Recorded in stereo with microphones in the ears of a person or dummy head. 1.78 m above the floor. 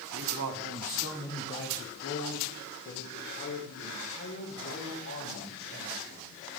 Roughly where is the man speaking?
Right.